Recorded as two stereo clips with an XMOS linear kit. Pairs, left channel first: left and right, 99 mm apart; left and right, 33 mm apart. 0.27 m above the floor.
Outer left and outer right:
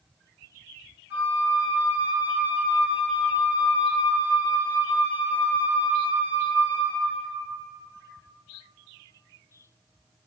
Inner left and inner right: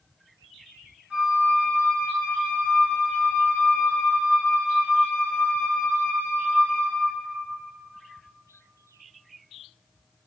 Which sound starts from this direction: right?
A flute, at 1.1 s.